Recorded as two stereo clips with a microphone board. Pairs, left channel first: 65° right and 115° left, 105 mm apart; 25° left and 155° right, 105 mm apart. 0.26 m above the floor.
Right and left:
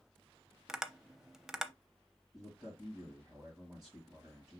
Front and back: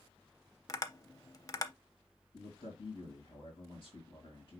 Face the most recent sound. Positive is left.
turn(degrees=40)